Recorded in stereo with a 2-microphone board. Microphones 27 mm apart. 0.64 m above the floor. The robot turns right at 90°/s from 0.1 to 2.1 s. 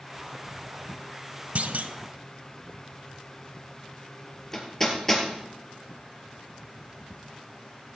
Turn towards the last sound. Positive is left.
turn(degrees=15)  # may be behind; listen again after turning